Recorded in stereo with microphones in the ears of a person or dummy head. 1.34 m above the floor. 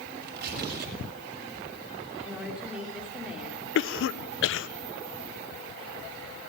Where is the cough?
65° left (ahead or behind), 1.0 m.